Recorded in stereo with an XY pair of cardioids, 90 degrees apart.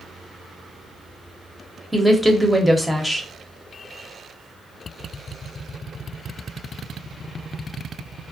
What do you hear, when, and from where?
1.9 s a woman speaking: straight ahead, 0.8 m